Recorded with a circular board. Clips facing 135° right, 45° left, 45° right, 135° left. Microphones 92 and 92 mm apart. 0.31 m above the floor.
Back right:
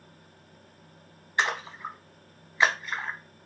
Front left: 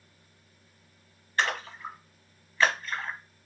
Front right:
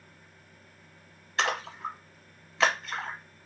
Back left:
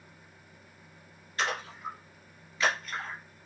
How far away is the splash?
About 0.5 m.